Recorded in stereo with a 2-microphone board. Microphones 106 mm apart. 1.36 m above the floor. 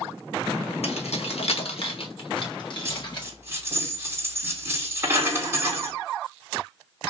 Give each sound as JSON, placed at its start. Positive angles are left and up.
{"t": 0.8, "sound": "keys jangling", "side_deg": 75, "distance_m": 1.5}
{"t": 2.9, "sound": "a dropped coin", "side_deg": -25, "distance_m": 3.0}